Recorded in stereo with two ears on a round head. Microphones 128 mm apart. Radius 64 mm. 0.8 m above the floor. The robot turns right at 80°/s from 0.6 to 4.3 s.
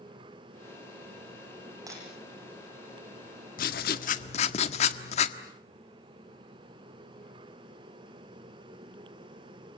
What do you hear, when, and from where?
1.9 s breaking glass: 25° right (ahead or behind), 9.5 m; by 2.0 s 10° right (ahead or behind), 9.5 m
3.6 s writing: 70° left, 1.5 m; by 5.4 s 130° left, 1.5 m